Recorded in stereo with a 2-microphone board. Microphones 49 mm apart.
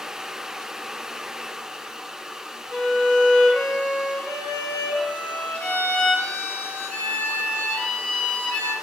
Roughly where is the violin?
Left.